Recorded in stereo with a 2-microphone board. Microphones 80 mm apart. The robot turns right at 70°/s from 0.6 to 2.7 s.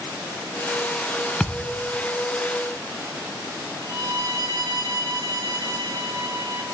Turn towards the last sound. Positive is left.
turn(degrees=-40)  # may be behind; listen again after turning